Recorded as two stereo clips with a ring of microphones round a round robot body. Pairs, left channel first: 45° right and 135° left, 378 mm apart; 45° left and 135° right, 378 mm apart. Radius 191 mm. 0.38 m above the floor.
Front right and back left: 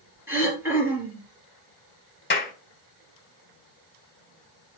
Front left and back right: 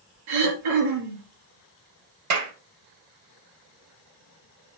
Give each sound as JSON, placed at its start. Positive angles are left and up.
{"t": 0.3, "sound": "throat clearing", "azimuth_deg": -140, "distance_m": 3.0}
{"t": 2.3, "sound": "a clap", "azimuth_deg": -100, "distance_m": 1.7}